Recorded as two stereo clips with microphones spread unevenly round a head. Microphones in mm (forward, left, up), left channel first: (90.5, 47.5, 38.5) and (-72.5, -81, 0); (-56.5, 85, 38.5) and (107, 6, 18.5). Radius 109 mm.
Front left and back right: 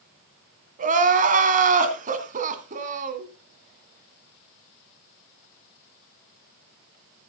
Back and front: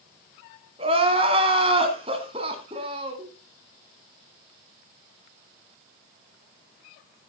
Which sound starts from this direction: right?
Crying, at 0.8 s.